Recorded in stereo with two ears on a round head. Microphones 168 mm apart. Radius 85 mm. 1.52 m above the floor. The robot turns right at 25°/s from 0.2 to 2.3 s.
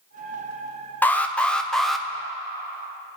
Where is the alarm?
10° left (ahead or behind), 0.6 m; by 2.1 s centre (ahead or behind), 0.6 m.